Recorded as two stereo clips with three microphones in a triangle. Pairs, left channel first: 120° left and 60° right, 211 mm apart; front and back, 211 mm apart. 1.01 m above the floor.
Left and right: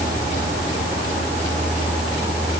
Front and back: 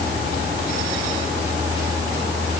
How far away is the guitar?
I don't hear a guitar.